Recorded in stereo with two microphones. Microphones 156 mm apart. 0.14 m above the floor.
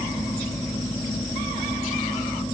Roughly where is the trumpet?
I don't hear a trumpet.